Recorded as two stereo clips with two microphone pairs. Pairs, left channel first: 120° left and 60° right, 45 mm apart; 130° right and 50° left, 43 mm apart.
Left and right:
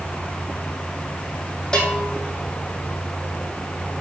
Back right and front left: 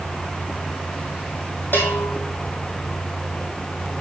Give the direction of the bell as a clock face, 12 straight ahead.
6 o'clock.